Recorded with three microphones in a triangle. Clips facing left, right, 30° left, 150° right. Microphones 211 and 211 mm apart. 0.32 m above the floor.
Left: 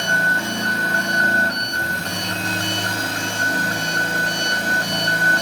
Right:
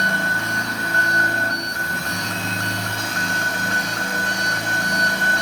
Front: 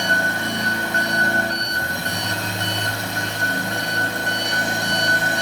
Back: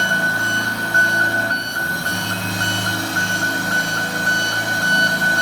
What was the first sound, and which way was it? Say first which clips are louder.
An engine running: left 1 dB, even; 80° left.